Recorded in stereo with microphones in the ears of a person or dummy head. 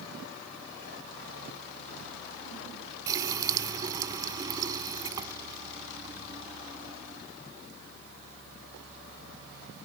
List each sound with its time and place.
3.1 s a running tap: 20° right (ahead or behind)